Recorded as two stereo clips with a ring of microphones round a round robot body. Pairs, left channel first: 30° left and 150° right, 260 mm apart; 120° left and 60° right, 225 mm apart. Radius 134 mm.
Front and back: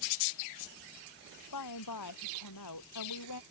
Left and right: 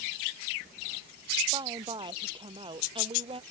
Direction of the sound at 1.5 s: 10° left.